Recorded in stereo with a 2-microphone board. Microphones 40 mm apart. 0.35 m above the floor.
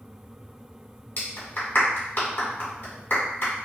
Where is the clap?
60° left (ahead or behind), 1.9 m.